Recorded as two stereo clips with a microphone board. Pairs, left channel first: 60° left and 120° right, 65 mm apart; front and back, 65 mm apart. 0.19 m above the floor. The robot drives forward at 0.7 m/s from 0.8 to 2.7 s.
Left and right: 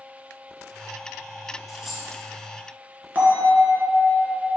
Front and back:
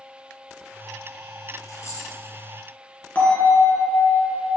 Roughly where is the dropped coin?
Ahead right.